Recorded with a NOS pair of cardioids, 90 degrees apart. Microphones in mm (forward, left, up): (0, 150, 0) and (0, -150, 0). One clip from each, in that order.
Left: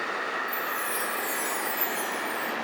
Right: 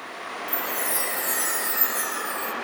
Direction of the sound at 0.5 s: 35° right.